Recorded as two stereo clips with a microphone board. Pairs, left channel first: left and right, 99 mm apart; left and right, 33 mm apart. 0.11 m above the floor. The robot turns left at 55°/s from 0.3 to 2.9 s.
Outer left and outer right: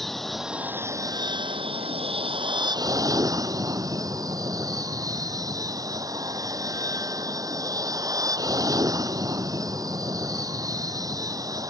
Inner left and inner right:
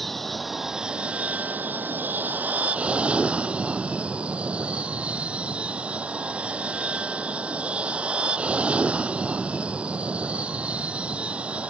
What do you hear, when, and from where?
0.0 s an aircraft: 5° left; by 11.7 s 140° right